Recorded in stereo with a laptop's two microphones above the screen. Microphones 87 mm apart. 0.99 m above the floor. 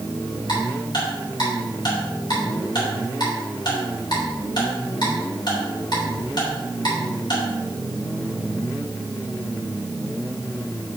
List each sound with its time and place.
0.5 s ticking: 55° left (ahead or behind), 3.5 m